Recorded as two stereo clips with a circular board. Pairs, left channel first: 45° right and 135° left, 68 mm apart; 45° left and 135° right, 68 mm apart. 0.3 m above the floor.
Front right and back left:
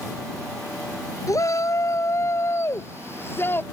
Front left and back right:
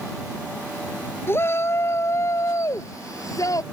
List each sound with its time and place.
1.3 s a shout: 10° right; by 3.6 s 10° left